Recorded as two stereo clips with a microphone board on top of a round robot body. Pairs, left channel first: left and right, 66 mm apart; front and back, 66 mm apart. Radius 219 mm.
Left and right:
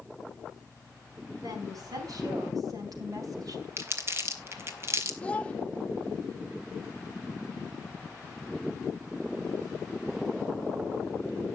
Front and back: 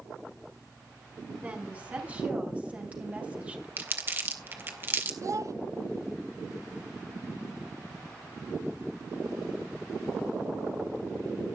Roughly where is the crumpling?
Behind right.